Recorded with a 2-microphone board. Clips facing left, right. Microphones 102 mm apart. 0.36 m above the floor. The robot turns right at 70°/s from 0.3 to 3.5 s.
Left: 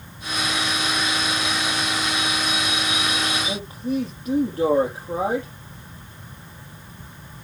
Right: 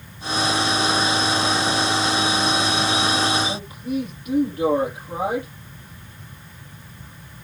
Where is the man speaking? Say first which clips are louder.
Left 1 dB; 30° left (ahead or behind), 9.5 m; by 5.5 s 35° left (ahead or behind), 9.5 m.